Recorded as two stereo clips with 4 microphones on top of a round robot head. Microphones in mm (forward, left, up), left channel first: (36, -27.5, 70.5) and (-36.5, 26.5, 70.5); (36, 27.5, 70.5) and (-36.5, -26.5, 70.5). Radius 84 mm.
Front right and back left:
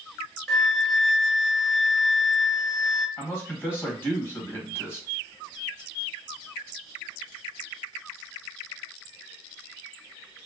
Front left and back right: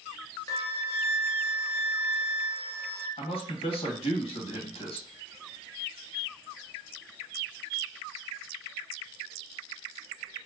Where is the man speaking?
30° left, 1.2 m.